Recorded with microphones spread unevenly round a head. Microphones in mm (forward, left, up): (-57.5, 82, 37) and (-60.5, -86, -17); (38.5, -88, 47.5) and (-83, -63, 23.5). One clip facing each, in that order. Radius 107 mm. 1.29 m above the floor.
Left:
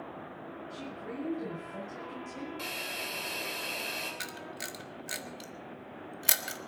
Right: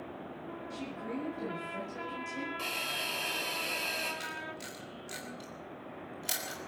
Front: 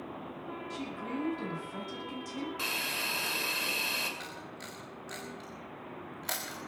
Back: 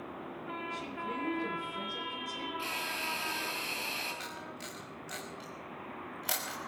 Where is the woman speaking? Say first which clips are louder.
Right 3 dB, front 3 dB; 10° right, 8 m.